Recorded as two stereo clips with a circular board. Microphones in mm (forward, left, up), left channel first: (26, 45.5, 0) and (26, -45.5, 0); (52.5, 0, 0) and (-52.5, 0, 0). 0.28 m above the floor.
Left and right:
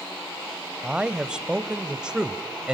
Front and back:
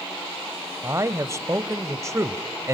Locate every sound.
0.8 s a man speaking: 165° right, 1.0 m